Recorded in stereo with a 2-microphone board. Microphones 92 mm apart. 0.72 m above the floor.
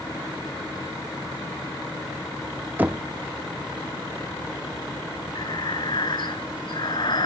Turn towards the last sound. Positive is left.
turn(degrees=55)  # may be behind; listen again after turning